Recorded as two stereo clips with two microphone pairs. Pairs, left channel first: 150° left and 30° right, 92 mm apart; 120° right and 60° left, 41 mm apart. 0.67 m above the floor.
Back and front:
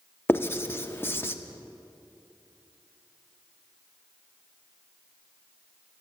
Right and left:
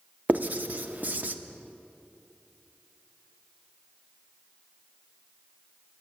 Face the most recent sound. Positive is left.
turn(degrees=90)